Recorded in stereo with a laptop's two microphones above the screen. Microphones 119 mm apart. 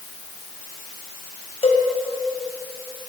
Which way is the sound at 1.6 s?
65° left (ahead or behind).